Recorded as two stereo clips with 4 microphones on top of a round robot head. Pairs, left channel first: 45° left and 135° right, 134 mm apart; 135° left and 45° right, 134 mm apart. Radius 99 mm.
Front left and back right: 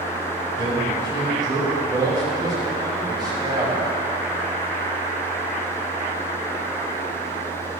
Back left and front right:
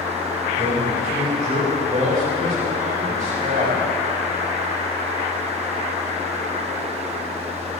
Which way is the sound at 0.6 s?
75° right.